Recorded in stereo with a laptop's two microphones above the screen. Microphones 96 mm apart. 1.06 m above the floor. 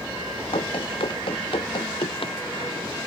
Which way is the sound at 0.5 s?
65° left (ahead or behind).